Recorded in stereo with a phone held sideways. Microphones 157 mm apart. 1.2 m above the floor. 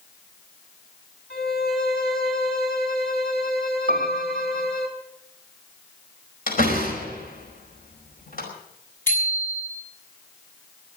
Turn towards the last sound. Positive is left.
turn(degrees=15)  # may be behind; listen again after turning